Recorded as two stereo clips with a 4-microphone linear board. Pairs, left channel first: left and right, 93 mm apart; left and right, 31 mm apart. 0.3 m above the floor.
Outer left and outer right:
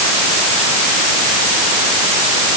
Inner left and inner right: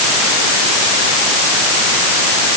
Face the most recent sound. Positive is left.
No sound to turn to.